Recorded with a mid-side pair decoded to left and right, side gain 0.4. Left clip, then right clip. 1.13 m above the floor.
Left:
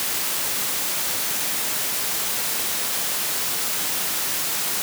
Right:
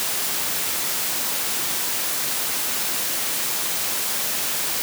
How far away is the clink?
I don't hear a clink.